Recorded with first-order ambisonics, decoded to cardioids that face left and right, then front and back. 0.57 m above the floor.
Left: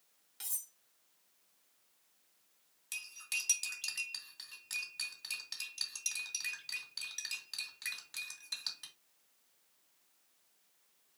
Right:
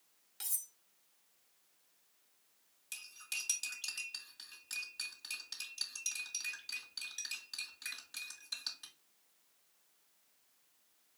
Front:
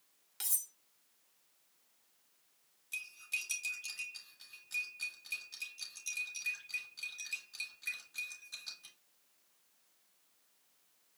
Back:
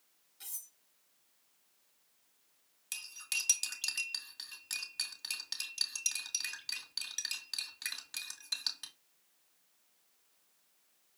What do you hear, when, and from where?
0.4 s cutlery clinking: 5° right, 0.9 m
2.9 s cutlery clinking: 165° left, 2.5 m